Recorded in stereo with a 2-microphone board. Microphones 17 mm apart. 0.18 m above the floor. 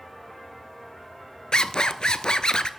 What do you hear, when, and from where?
1.5 s a zipper: 65° left (ahead or behind), 0.6 m